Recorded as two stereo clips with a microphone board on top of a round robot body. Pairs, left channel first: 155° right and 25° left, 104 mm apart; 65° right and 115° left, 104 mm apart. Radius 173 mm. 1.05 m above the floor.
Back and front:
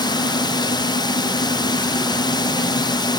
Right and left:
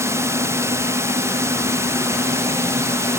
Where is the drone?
170° left.